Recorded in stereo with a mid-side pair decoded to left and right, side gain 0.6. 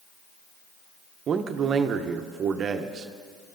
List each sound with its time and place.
1.3 s a man speaking: 45° right, 0.8 m